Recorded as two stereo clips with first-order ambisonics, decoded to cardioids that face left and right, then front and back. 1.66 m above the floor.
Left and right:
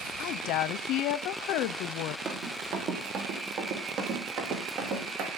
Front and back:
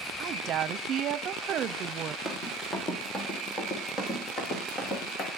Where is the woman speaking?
125° left, 0.7 m.